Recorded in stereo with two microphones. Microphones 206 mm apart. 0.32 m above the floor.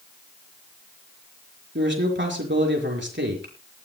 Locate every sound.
1.8 s a man speaking: 65° right (ahead or behind), 4.5 m